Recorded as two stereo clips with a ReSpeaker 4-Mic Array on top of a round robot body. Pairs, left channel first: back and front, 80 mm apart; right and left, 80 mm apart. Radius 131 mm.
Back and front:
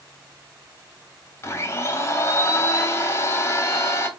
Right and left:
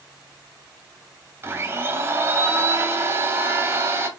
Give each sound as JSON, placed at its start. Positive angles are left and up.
{"t": 1.4, "sound": "a blender", "azimuth_deg": 135, "distance_m": 1.0}